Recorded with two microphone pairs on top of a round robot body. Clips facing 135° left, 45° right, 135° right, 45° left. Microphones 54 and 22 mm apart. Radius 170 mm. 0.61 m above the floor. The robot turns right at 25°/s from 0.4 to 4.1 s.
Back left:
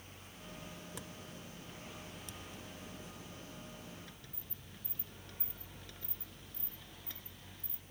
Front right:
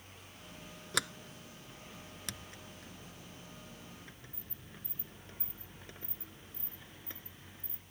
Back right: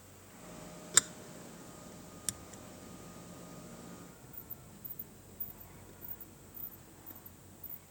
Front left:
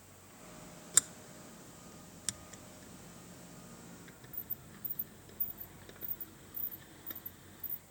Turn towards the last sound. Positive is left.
turn(degrees=10)